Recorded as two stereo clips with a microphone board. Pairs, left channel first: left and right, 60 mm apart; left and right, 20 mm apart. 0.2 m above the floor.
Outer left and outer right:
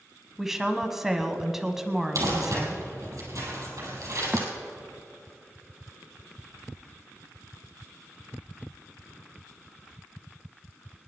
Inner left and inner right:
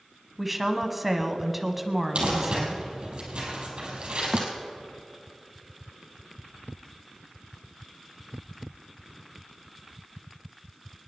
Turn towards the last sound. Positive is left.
turn(degrees=-20)  # may be behind; listen again after turning